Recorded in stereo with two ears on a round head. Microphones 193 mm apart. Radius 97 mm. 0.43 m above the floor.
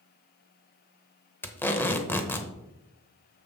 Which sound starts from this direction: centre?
Tape being pulled, at 1.4 s.